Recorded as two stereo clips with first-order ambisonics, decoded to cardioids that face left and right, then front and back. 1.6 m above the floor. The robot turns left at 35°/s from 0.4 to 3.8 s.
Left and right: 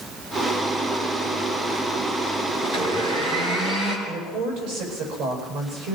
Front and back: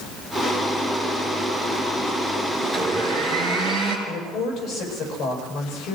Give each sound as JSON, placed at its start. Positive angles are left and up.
{"t": 2.6, "sound": "a blender", "azimuth_deg": -100, "distance_m": 5.5}
{"t": 4.1, "sound": "a woman speaking", "azimuth_deg": -70, "distance_m": 8.5}